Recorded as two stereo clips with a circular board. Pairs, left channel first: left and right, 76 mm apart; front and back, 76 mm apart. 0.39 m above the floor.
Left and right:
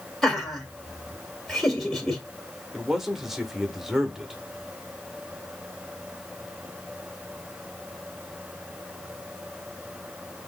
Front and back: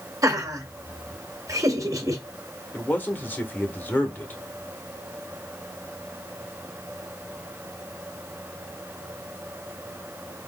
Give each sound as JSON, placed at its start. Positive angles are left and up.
{"t": 0.2, "sound": "laughter", "azimuth_deg": 175, "distance_m": 1.9}
{"t": 2.7, "sound": "a man speaking", "azimuth_deg": -10, "distance_m": 0.9}